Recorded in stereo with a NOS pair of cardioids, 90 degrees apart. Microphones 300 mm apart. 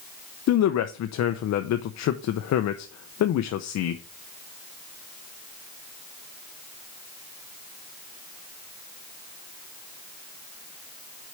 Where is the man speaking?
65° left, 0.8 m.